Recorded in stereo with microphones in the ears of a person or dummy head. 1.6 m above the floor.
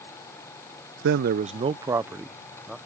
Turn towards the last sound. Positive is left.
turn(degrees=0)  # may be behind; listen again after turning